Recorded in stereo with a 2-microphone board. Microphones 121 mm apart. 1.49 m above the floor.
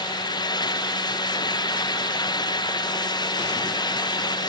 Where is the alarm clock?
No alarm clock in this recording.